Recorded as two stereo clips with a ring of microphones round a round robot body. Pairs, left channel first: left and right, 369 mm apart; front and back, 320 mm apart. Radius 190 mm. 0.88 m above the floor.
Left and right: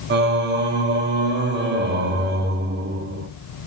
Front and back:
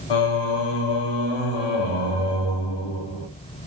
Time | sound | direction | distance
0.1 | singing | 25° right | 0.8 m